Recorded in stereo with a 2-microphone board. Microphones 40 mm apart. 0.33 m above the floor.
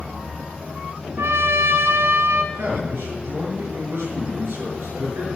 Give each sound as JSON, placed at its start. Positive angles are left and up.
{"t": 1.2, "sound": "a trumpet", "side_deg": -85, "distance_m": 1.3}
{"t": 2.5, "sound": "a man speaking", "side_deg": -75, "distance_m": 6.5}